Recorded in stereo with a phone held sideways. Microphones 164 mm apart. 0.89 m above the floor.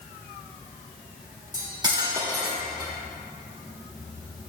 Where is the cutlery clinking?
25° right (ahead or behind), 1.2 m.